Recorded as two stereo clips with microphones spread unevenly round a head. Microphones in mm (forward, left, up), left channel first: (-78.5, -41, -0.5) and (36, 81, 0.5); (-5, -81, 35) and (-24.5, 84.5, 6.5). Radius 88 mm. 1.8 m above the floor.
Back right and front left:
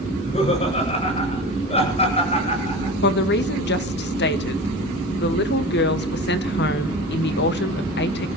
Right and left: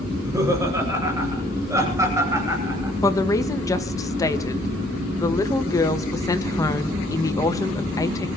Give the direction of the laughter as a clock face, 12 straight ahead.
6 o'clock.